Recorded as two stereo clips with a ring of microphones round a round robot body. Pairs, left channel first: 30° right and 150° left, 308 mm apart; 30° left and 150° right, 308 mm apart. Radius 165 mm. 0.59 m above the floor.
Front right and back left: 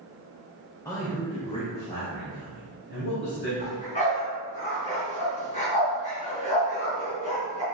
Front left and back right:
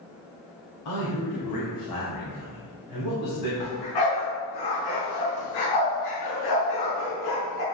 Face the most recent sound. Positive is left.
turn(degrees=35)